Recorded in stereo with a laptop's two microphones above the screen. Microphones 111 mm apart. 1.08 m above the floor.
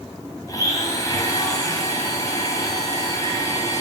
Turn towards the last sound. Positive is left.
turn(degrees=30)  # may be behind; listen again after turning